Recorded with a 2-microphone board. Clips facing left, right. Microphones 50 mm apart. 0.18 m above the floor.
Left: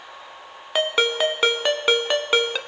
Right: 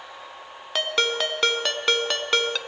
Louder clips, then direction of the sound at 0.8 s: Left 3 dB; 15° left (ahead or behind).